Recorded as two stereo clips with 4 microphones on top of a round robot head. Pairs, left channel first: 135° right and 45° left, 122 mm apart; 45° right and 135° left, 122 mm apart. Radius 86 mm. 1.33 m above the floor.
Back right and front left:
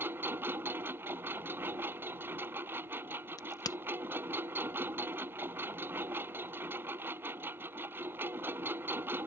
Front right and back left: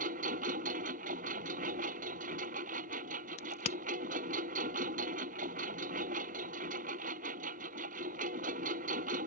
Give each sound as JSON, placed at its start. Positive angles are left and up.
{"t": 0.0, "sound": "a lawn mower", "azimuth_deg": 115}
{"t": 3.4, "sound": "a crack", "azimuth_deg": -80}